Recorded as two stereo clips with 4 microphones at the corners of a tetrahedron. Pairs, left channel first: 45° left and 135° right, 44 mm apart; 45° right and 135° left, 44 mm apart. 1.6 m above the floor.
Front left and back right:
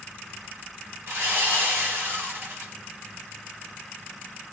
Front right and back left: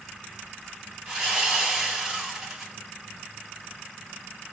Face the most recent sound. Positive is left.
turn(degrees=-145)